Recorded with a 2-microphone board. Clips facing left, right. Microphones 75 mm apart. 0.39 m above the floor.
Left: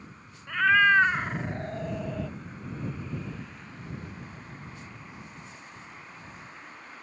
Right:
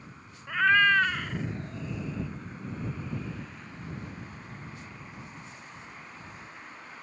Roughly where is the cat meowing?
Centre.